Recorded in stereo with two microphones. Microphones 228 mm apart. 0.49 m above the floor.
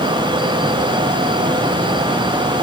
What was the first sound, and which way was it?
Only background noise.